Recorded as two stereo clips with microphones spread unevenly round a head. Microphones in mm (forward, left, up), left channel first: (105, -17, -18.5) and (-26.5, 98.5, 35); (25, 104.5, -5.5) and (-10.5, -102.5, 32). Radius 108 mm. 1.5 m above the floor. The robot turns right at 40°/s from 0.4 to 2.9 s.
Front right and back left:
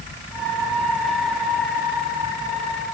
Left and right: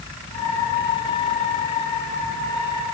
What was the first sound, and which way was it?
Only background noise.